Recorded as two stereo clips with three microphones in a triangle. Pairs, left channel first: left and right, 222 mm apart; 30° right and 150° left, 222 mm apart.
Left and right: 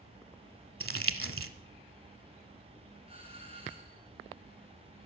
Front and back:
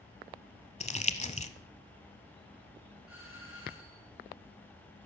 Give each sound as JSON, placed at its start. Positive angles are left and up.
{"t": 0.8, "sound": "crumpling", "azimuth_deg": -90, "distance_m": 1.2}
{"t": 3.1, "sound": "a doorbell", "azimuth_deg": -30, "distance_m": 4.0}